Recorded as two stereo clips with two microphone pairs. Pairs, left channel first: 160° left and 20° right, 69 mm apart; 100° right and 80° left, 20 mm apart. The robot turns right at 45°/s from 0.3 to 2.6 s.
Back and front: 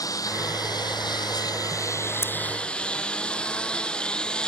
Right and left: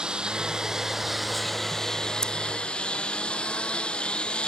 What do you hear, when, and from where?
0.0 s a lawn mower: 125° left; by 4.5 s 125° right
2.2 s scissors: 150° right; by 2.3 s 145° right